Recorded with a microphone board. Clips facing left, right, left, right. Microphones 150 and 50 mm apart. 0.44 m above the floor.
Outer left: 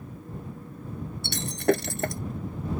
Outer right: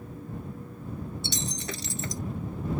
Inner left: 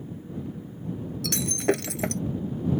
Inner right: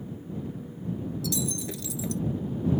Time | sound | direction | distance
1.2 | breaking glass | 55° left (ahead or behind) | ?